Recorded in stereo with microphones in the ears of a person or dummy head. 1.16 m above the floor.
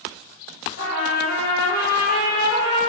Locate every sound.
0.8 s a trumpet: 60° left (ahead or behind), 1.3 m